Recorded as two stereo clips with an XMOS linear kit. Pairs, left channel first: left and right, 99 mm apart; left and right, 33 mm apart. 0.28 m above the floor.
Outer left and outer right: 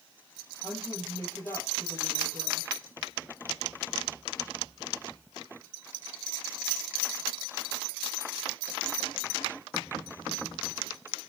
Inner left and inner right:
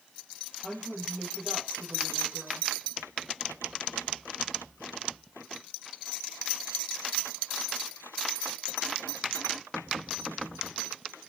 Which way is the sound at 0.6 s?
30° left (ahead or behind).